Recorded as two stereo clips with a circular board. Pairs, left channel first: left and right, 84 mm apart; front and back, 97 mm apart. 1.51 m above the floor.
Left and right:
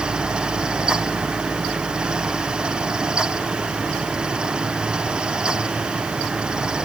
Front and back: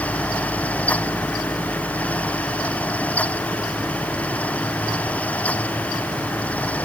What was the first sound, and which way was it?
Only background noise.